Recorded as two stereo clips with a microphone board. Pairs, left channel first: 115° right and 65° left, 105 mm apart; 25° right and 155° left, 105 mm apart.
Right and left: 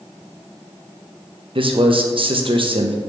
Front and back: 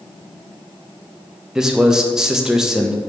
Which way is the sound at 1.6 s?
75° left.